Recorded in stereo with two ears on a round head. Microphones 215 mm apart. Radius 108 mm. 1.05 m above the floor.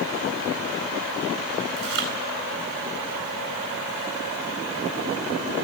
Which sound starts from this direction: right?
Chewing, at 1.8 s.